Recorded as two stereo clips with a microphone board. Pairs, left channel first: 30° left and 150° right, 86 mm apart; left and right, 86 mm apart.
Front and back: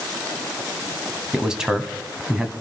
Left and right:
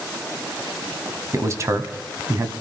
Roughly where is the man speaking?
Right.